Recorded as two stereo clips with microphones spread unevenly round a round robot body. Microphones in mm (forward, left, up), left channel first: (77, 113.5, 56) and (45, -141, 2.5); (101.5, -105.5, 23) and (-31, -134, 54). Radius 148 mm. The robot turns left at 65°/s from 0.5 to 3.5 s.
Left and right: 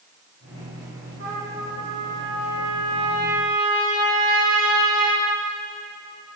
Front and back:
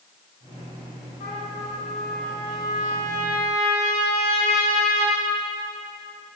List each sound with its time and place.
1.2 s a trumpet: 15° left, 6.5 m; by 5.2 s 130° right, 6.5 m